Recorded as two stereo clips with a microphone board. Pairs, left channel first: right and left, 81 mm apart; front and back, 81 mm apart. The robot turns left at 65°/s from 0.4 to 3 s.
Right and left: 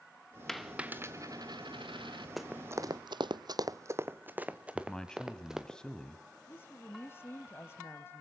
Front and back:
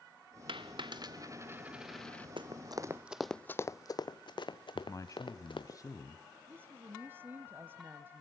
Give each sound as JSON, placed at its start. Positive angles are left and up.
{"t": 0.5, "sound": "a dropped coin", "azimuth_deg": -175, "distance_m": 2.0}
{"t": 2.4, "sound": "running footsteps", "azimuth_deg": 180, "distance_m": 1.1}
{"t": 4.8, "sound": "a man speaking", "azimuth_deg": -15, "distance_m": 1.6}
{"t": 6.5, "sound": "a woman speaking", "azimuth_deg": -130, "distance_m": 1.2}